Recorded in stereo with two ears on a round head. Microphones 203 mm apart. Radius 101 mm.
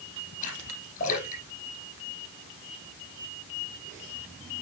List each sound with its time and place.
0.4 s a splash: 35° left (ahead or behind), 5 m